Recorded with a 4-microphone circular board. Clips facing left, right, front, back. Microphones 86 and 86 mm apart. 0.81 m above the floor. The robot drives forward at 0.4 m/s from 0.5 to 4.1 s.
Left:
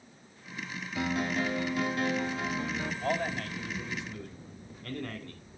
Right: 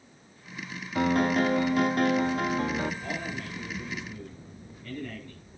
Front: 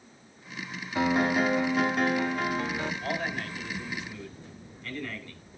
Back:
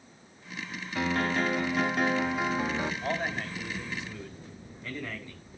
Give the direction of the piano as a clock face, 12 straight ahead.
2 o'clock.